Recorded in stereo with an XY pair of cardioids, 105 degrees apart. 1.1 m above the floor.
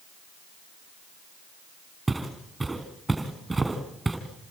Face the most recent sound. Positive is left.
turn(degrees=-15)